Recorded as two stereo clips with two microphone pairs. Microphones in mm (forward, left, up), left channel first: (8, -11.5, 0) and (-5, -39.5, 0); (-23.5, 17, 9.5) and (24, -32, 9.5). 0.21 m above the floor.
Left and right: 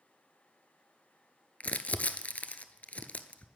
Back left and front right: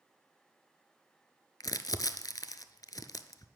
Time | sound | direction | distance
1.6 | crumpling | 105° left | 0.6 m